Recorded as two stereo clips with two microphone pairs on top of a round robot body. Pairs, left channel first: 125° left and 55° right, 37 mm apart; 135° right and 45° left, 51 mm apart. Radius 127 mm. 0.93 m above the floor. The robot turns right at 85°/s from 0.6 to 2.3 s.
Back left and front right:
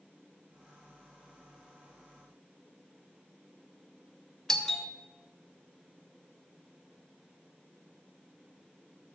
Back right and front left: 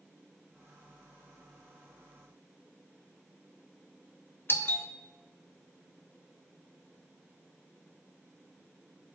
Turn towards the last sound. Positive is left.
turn(degrees=-150)